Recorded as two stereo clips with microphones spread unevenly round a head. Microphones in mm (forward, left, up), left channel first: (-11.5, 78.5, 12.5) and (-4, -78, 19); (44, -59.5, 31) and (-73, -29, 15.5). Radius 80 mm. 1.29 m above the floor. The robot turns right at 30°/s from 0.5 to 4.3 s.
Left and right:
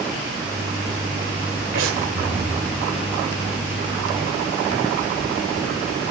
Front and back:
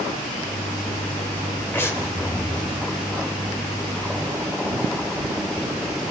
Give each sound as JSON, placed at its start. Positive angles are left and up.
{"t": 1.7, "sound": "breathing", "azimuth_deg": -85, "distance_m": 2.5}